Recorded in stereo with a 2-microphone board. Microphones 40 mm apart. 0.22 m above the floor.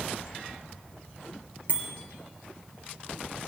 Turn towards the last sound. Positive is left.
turn(degrees=-45)  # may be behind; listen again after turning